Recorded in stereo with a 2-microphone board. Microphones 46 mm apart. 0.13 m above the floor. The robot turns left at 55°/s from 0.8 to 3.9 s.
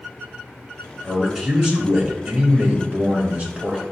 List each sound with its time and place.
1.0 s a man speaking: 5° left (ahead or behind), 1.3 m; by 3.8 s 20° right (ahead or behind), 1.3 m